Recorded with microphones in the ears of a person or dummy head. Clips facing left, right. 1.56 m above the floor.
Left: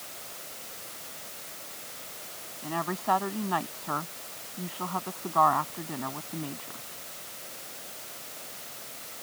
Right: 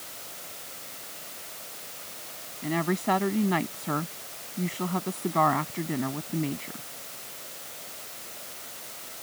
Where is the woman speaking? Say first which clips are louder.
Right 4 dB; 25° right (ahead or behind).